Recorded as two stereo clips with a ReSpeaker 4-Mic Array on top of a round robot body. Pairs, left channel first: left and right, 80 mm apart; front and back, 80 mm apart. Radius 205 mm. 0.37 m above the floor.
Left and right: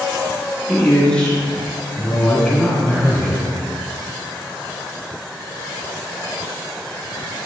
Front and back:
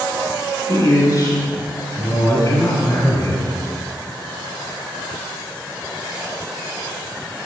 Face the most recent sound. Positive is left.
turn(degrees=15)